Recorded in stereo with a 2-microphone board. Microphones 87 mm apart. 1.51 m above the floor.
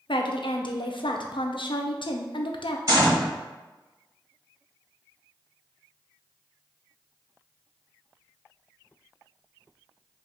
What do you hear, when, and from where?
0.1 s a woman speaking: 70° left (ahead or behind), 0.6 m
2.9 s a gunshot: 40° right (ahead or behind), 2 m